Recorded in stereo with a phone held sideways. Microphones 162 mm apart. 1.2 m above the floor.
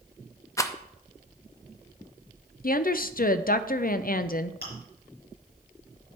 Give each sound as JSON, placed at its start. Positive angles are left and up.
{"t": 0.6, "sound": "a rattle", "side_deg": 20, "distance_m": 0.5}
{"t": 2.6, "sound": "a woman speaking", "side_deg": 60, "distance_m": 0.5}
{"t": 4.6, "sound": "chewing", "side_deg": 70, "distance_m": 4.0}